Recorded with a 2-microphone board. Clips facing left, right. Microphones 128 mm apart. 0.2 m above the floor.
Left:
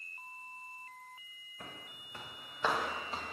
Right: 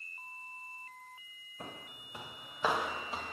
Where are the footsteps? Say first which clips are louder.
Right 3 dB; 25° right (ahead or behind), 1.2 m; by 3.3 s centre (ahead or behind), 2 m.